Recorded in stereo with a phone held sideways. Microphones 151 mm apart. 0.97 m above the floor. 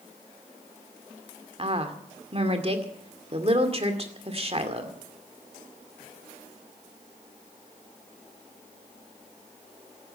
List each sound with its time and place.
1.6 s a woman speaking: 40° right (ahead or behind), 2 m